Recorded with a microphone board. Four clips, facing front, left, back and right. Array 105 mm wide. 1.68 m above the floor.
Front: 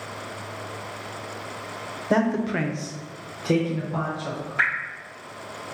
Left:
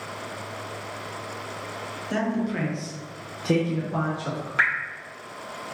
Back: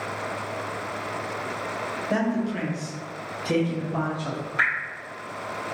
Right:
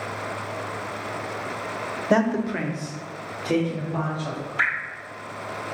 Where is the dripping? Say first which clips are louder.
Left 2 dB, even; 95° left, 2.0 m.